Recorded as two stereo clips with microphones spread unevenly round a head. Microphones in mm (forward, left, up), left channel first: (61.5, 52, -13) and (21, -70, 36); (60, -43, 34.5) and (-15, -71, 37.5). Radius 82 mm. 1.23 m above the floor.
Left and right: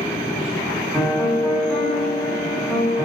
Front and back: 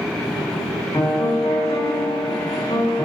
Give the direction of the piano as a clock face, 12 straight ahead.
1 o'clock.